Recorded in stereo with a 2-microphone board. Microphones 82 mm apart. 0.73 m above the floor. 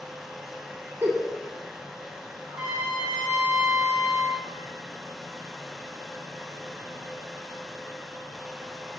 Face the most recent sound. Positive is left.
turn(degrees=-15)  # may be behind; listen again after turning